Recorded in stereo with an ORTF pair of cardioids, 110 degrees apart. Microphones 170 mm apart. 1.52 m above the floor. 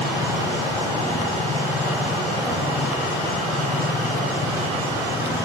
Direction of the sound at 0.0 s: 70° left.